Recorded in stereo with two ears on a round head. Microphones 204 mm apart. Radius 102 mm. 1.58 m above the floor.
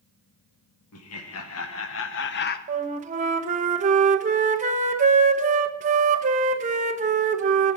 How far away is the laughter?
About 1.7 m.